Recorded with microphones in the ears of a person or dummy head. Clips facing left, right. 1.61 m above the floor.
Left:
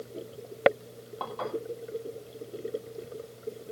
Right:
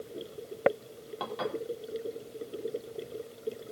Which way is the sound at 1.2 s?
25° right (ahead or behind).